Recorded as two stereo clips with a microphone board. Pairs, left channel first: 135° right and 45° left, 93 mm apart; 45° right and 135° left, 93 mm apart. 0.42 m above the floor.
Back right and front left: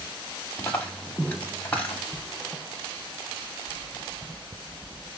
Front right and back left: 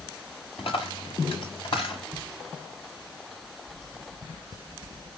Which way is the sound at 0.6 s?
65° right.